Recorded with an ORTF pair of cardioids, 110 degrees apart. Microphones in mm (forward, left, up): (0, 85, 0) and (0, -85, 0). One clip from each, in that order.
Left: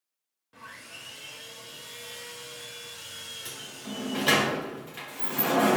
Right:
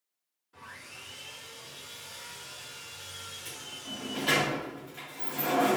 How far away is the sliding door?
About 0.9 m.